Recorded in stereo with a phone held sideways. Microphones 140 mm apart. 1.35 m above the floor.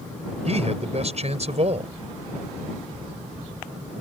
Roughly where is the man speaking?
Right.